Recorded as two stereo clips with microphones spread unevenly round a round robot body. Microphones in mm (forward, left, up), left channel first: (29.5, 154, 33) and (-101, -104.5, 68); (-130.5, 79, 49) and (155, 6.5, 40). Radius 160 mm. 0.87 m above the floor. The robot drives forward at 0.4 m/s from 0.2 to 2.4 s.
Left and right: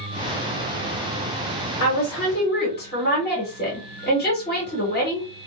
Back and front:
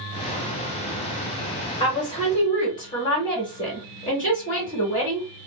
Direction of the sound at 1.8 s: 95° left.